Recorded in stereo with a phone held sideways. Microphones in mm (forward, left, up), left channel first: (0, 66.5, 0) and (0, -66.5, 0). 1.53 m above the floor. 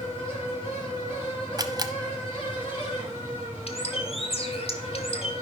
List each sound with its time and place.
0.0 s a fan: 45° left (ahead or behind), 4.5 m
1.6 s a camera shutter: 30° right (ahead or behind), 0.6 m
3.7 s a bird: 50° left (ahead or behind), 1.1 m